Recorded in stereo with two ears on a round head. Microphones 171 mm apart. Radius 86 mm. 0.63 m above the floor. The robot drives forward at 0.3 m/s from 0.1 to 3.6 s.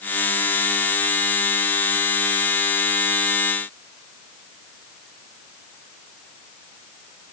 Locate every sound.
Only background noise.